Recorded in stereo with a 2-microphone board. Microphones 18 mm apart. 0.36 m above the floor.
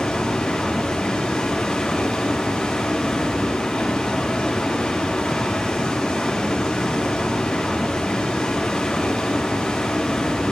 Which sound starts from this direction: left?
Running water, at 0.0 s.